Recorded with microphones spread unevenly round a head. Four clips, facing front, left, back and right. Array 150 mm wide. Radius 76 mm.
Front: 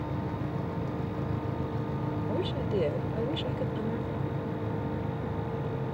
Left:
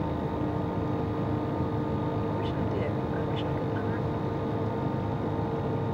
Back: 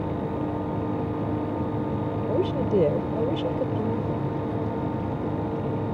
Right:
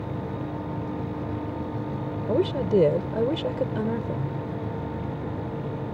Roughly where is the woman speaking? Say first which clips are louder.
Right 7 dB, back 9 dB; behind right.